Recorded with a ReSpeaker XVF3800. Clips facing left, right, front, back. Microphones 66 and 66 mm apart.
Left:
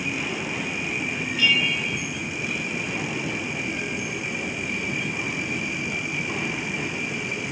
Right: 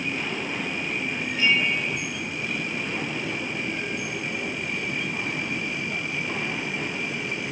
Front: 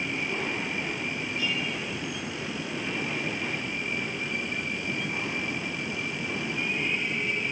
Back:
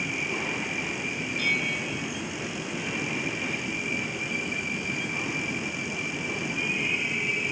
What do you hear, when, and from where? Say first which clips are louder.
1.4 s a bell: right 1 dB, back 5 dB; 150° right